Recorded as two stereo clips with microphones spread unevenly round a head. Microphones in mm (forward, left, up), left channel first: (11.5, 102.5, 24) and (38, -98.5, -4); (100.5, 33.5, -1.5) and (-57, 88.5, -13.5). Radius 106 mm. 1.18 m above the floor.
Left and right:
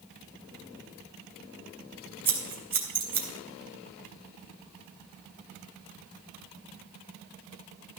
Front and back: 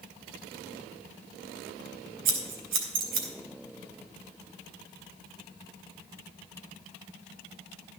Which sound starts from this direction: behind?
Scissors, at 2.2 s.